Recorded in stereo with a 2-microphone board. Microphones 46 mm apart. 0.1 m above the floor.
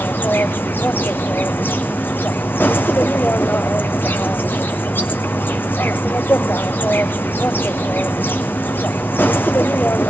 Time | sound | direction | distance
0.0 | an insect | 45° left (ahead or behind) | 0.9 m